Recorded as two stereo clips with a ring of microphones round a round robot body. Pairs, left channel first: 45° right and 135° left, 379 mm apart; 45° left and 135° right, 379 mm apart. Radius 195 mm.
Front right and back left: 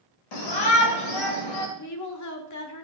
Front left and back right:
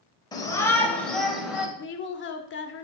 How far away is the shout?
About 2.5 m.